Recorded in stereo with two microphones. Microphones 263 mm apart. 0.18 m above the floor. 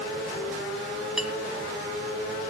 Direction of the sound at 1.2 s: Centre (ahead or behind).